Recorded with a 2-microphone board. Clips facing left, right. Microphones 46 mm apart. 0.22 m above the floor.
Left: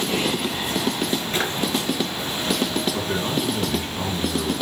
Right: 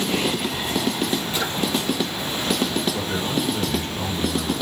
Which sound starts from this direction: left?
A drawer, at 1.3 s.